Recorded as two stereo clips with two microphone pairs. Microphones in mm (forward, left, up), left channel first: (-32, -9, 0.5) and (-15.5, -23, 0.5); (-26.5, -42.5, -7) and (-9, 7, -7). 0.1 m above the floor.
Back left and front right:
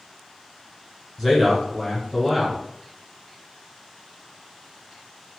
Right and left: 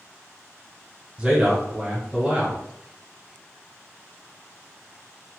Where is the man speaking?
35° left, 1.3 m.